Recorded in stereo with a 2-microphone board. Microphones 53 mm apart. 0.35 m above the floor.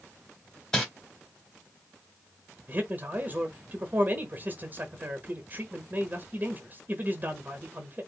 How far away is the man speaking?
About 1.0 m.